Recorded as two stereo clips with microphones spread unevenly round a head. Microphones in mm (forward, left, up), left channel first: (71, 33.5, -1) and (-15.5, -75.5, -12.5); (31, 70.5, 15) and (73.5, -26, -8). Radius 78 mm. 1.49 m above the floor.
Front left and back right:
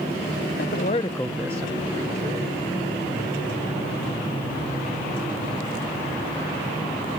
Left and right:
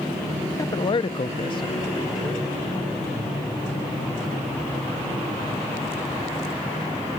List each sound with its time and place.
0.6 s a man speaking: 65° left; by 2.6 s 175° right